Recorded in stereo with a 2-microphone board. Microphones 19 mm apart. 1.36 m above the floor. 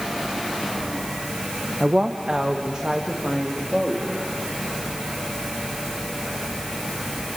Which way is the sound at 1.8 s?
45° right (ahead or behind).